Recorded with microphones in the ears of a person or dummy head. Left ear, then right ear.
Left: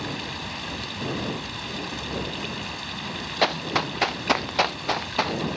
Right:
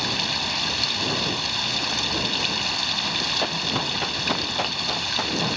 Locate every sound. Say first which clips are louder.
0.0 s running water: right 8 dB; 40° right (ahead or behind)
3.4 s running footsteps: even; 40° left (ahead or behind); by 5.5 s 30° left (ahead or behind)